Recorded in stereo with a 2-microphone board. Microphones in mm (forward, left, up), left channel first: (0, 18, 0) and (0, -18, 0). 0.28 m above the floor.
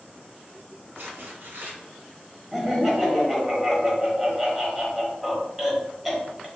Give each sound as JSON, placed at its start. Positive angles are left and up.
{"t": 0.9, "sound": "tearing paper", "side_deg": -65, "distance_m": 1.3}
{"t": 2.5, "sound": "laughter", "side_deg": -5, "distance_m": 1.1}